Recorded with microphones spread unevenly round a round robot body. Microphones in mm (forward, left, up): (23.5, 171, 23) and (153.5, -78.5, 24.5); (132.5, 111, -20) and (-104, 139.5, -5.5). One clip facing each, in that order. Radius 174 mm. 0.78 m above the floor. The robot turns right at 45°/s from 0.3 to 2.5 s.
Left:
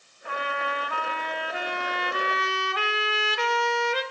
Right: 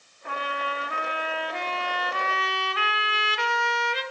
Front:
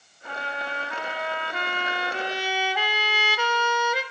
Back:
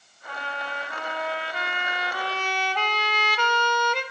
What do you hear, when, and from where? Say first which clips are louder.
0.2 s a trumpet: left 1 dB, front 2 dB; 25° right, 1.7 m; by 4.0 s 75° left, 1.7 m